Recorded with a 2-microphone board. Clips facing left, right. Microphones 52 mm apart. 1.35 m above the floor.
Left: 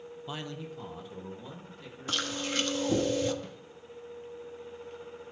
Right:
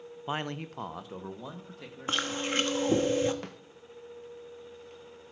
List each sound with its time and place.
0.3 s a man speaking: 30° right (ahead or behind), 0.5 m; by 2.5 s 85° right, 3 m
2.1 s chewing: 30° right (ahead or behind), 1.2 m
3.4 s a snare drum: 60° right (ahead or behind), 0.8 m